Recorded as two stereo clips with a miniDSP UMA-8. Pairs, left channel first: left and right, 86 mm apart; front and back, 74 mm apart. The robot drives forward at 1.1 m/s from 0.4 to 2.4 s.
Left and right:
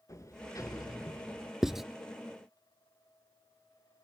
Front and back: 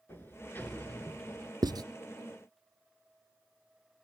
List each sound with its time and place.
0.1 s a sliding door: 50° left, 2.5 m; by 1.5 s 85° left, 2 m
1.6 s writing: 175° right, 0.6 m